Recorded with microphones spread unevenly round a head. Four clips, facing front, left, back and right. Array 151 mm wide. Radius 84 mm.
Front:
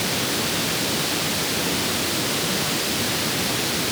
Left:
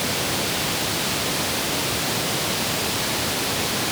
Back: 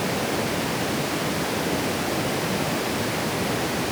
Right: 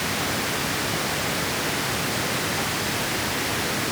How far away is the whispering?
I don't hear whispering.